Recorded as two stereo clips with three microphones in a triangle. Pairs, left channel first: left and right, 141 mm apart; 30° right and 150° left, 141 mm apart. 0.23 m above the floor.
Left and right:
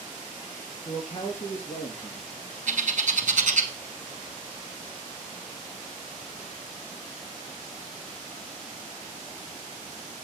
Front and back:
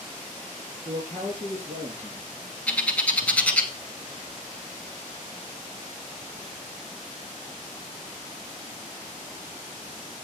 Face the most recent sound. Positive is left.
turn(degrees=-110)